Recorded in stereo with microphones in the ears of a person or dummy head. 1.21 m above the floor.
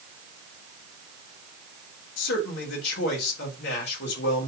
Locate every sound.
2.2 s a man speaking: 55° left (ahead or behind), 3.5 m